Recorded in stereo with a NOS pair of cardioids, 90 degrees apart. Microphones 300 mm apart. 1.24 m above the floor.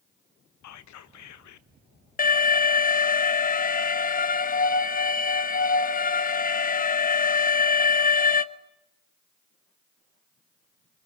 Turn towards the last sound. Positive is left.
turn(degrees=30)